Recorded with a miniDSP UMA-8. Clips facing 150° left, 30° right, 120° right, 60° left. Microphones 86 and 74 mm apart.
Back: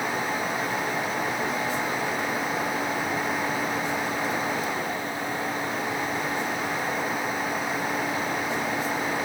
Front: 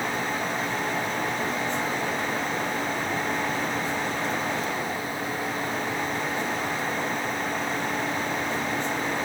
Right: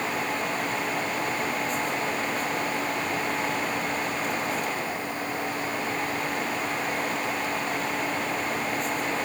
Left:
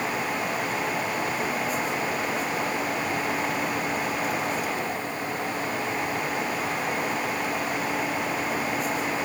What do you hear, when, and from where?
Only background noise.